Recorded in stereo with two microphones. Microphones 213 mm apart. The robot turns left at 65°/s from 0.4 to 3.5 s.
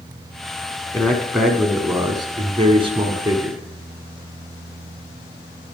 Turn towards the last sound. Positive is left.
turn(degrees=-15)  # may be behind; listen again after turning